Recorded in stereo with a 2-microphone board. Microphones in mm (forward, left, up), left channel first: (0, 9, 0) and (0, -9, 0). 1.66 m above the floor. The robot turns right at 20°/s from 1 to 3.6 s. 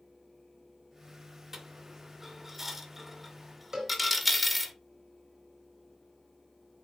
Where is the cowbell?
40° right (ahead or behind), 3.5 m.